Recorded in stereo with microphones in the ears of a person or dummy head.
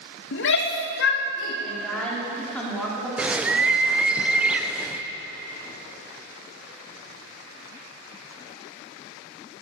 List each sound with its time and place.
0.3 s a shout: 55° left (ahead or behind), 2.0 m; by 1.5 s 60° left (ahead or behind), 3.5 m
1.6 s a woman speaking: centre (ahead or behind), 4 m
3.2 s a bird: 15° right (ahead or behind), 0.6 m